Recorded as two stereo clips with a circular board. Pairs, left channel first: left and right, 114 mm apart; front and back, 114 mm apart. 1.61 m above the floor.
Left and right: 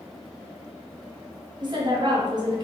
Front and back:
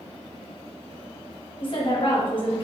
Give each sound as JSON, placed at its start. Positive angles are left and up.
{"t": 1.6, "sound": "a woman speaking", "azimuth_deg": -40, "distance_m": 0.9}